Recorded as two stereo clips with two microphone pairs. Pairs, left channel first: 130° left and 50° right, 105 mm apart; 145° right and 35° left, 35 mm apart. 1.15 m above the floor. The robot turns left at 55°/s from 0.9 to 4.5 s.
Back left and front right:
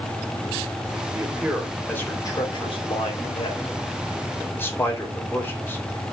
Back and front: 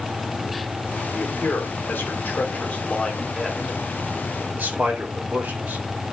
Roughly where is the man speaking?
Right.